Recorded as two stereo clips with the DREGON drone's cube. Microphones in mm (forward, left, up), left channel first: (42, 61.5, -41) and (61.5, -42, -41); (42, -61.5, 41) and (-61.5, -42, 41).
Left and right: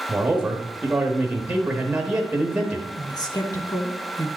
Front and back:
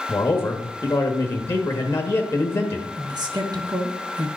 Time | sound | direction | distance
0.1 | a man speaking | 15° right | 1.0 m
3.0 | a man speaking | 135° left | 1.1 m